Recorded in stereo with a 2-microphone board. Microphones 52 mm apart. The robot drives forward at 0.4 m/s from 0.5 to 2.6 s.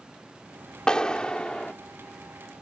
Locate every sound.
0.9 s a clap: 15° left (ahead or behind); by 1.7 s 20° left (ahead or behind)